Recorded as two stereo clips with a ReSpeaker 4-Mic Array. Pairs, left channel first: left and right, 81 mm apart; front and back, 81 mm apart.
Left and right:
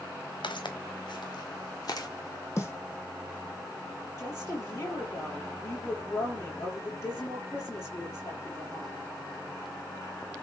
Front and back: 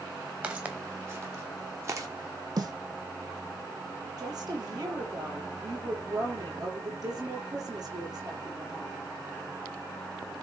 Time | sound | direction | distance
0.4 | footsteps | 110° left | 2.5 m
2.6 | a snare drum | 145° left | 3.5 m
4.2 | a woman speaking | 145° left | 6 m